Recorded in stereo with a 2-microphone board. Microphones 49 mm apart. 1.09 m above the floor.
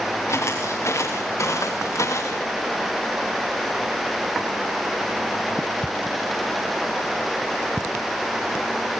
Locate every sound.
0.3 s footsteps: 65° left (ahead or behind), 6 m; by 2.4 s 80° left, 5.5 m